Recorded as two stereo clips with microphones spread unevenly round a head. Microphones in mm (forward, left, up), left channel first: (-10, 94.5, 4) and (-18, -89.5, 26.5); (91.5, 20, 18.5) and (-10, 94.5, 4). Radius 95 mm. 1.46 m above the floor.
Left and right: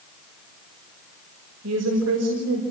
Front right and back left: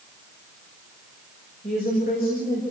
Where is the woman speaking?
85° right, 6 m.